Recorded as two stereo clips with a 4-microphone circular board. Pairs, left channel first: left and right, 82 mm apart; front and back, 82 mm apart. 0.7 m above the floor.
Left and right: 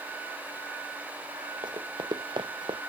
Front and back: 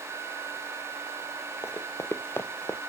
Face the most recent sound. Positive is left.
turn(degrees=-65)